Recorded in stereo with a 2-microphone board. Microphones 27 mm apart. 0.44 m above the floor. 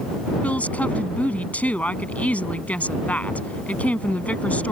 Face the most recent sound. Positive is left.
turn(degrees=60)  # may be behind; listen again after turning